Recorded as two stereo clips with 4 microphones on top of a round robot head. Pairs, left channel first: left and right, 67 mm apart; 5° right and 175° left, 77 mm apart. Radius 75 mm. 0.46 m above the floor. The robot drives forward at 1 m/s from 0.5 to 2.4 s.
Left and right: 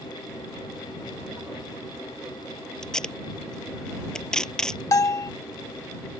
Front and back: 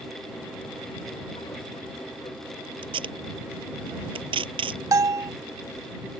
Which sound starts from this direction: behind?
Tape being pulled, at 2.8 s.